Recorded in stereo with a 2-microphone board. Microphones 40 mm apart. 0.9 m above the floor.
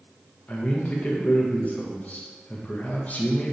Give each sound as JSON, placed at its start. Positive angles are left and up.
{"t": 0.5, "sound": "a man speaking", "side_deg": 40, "distance_m": 0.5}